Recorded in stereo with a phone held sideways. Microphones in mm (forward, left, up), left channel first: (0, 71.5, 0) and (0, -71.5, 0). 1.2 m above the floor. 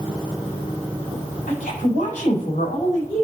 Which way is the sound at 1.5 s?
80° left.